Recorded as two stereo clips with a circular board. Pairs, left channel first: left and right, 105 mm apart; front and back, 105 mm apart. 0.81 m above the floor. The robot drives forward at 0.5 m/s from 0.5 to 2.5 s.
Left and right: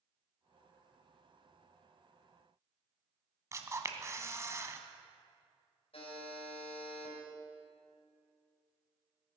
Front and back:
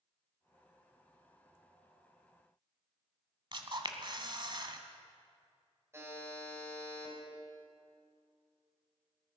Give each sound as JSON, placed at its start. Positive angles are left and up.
{"t": 3.5, "sound": "a camera shutter", "azimuth_deg": -150, "distance_m": 1.1}
{"t": 5.9, "sound": "a buzzer", "azimuth_deg": 115, "distance_m": 4.0}